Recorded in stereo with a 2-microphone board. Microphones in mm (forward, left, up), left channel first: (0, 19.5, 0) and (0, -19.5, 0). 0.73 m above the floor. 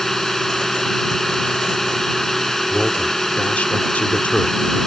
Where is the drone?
10° left (ahead or behind).